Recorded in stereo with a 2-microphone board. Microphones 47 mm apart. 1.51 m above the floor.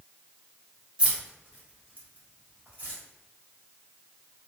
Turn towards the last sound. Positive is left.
turn(degrees=-35)  # may be behind; listen again after turning